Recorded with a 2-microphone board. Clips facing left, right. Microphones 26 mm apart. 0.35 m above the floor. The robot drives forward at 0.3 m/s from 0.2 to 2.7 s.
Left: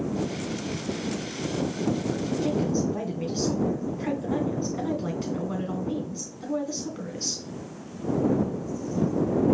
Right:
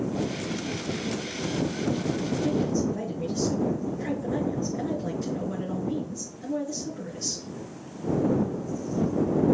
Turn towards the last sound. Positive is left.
turn(degrees=55)  # may be behind; listen again after turning